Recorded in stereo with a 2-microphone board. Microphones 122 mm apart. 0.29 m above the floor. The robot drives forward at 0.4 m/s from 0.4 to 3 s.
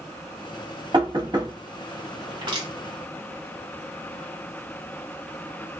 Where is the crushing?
40° right (ahead or behind), 1.7 m.